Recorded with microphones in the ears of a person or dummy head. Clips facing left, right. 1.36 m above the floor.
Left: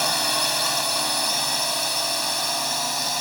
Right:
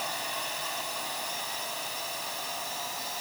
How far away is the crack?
I don't hear a crack.